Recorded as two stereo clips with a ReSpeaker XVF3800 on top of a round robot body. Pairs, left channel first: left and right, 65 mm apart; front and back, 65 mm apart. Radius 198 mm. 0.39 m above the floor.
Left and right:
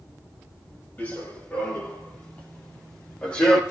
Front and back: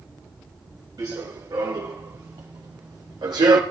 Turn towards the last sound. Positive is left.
turn(degrees=170)